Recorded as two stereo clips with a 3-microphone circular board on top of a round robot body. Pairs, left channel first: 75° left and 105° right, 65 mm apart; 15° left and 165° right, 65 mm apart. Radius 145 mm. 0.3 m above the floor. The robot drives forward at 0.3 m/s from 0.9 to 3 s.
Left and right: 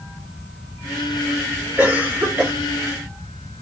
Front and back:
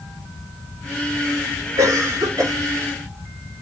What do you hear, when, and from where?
1.8 s a cough: 160° right, 1.8 m